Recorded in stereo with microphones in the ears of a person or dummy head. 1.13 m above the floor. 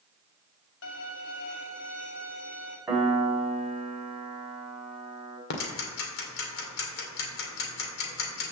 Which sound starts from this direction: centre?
A piano, at 2.9 s.